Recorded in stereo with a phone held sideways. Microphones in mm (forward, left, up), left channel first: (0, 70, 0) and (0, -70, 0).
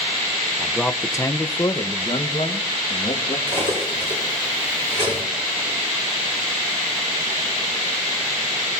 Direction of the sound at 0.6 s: Centre (ahead or behind).